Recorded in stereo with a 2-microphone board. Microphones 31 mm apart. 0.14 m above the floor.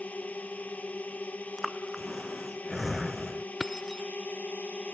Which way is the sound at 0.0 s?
50° left (ahead or behind).